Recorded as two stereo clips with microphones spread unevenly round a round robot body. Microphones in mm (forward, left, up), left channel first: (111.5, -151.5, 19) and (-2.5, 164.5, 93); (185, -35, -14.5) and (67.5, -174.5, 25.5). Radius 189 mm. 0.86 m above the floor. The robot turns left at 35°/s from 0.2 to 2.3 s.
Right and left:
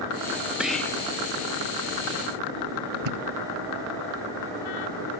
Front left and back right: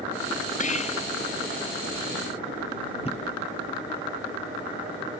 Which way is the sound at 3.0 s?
125° left.